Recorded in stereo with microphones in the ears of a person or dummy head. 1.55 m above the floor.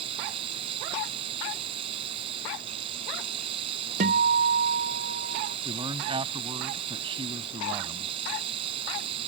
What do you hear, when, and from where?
0.0 s running water: 35° right (ahead or behind)
4.0 s a guitar: 40° right (ahead or behind)
5.7 s a man speaking: 25° right (ahead or behind)